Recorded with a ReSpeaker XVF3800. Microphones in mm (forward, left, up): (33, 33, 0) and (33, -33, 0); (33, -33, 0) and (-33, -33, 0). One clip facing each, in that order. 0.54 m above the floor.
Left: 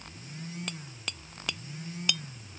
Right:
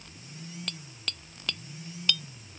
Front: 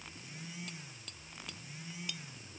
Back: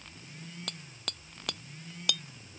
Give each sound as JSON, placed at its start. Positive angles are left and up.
{"t": 0.7, "sound": "hammering", "azimuth_deg": 165}